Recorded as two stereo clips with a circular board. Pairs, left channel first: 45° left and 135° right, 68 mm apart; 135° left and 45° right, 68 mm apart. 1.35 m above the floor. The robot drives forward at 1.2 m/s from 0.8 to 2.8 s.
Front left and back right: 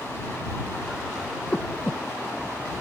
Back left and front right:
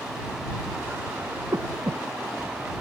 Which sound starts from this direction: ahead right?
Breathing, at 1.5 s.